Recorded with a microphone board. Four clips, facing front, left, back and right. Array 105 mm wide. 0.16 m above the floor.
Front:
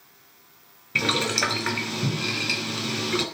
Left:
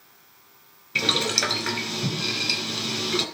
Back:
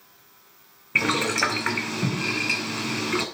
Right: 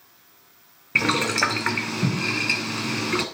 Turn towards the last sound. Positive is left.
turn(degrees=-110)